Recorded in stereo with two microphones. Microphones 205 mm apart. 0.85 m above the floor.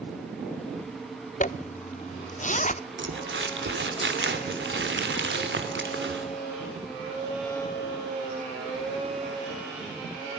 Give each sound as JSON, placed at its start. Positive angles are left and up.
{"t": 1.4, "sound": "a zipper", "side_deg": 40, "distance_m": 0.6}
{"t": 3.0, "sound": "crumpling", "side_deg": -65, "distance_m": 3.0}